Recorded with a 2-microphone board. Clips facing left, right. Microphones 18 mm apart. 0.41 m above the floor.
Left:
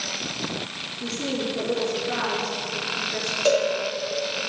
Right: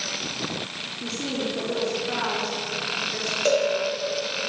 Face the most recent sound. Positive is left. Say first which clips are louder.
# left 1 dB
turn(degrees=0)  # may be behind; listen again after turning